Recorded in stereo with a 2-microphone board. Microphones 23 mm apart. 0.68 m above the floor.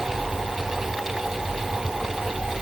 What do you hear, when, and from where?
Only background noise.